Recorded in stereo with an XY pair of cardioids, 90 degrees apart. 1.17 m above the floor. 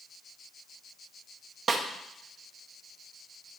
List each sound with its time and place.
1.7 s a snare drum: 50° right, 1.2 m